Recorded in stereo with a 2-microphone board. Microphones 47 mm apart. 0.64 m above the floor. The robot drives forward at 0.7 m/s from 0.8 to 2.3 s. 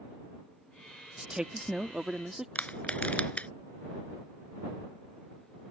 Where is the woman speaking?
20° right (ahead or behind); by 2.5 s 15° right (ahead or behind).